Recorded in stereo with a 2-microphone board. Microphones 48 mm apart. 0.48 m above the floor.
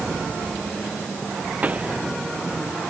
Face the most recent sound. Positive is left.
turn(degrees=-30)  # may be behind; listen again after turning